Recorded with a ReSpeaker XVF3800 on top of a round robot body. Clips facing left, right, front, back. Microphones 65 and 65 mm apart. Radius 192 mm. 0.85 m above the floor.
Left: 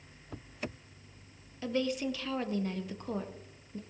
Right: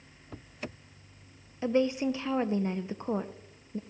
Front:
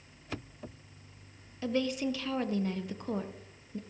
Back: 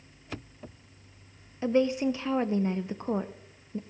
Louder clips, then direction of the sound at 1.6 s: Right 5 dB, back 6 dB; 135° right.